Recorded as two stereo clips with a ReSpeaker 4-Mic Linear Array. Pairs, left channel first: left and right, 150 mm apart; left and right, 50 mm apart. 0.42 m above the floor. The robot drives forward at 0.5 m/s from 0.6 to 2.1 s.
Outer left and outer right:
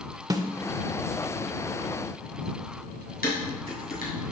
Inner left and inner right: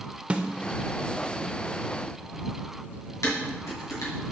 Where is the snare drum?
25° right (ahead or behind), 0.5 m.